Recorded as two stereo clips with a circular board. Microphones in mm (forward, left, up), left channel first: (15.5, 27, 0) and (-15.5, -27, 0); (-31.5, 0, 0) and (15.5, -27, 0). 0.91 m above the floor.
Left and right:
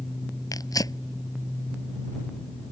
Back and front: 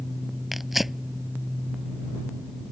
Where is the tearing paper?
60° left.